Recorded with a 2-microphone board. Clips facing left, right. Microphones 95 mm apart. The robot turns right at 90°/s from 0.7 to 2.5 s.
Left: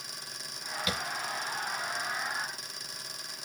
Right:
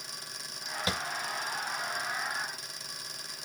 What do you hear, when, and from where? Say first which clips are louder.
0.9 s tapping: right 1 dB; 35° right (ahead or behind), 1.0 m; by 1.0 s 25° right (ahead or behind), 1.0 m